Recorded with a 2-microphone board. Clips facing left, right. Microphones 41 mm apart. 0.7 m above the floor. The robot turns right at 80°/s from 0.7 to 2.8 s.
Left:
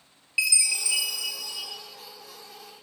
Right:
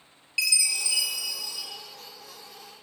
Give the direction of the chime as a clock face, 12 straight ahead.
11 o'clock.